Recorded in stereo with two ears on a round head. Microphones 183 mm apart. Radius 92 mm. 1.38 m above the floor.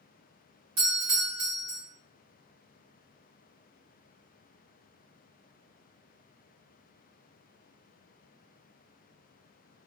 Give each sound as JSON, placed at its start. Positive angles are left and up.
{"t": 0.8, "sound": "a doorbell", "side_deg": -45, "distance_m": 1.7}